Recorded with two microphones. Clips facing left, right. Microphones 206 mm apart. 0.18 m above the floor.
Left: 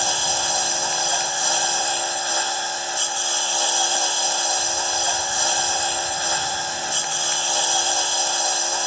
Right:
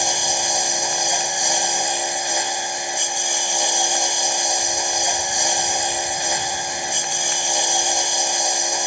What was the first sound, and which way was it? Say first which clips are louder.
A lawn mower: right 2 dB; 15° right (ahead or behind).